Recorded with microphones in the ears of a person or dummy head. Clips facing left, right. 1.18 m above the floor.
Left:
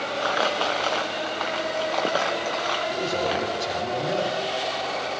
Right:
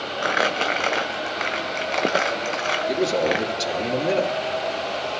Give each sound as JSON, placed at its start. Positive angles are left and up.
{"t": 0.2, "sound": "crumpling", "side_deg": -30, "distance_m": 0.5}
{"t": 2.9, "sound": "a man speaking", "side_deg": -85, "distance_m": 2.0}